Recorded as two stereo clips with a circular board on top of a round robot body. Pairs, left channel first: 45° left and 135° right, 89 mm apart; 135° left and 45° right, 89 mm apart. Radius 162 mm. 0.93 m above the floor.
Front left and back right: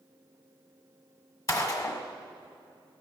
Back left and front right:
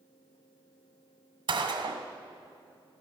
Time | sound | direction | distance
1.5 | a gunshot | 5° right | 1.8 m